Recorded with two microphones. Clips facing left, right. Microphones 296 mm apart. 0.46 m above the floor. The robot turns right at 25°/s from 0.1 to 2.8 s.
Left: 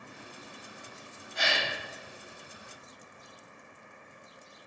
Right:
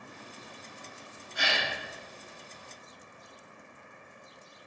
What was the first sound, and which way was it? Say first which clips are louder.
A gasp: left 1 dB; 15° right (ahead or behind).